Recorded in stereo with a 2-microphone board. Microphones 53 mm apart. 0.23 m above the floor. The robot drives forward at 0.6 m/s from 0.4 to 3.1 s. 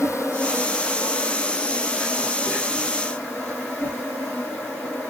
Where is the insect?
70° left (ahead or behind), 0.9 m; by 5.1 s 25° left (ahead or behind), 2 m.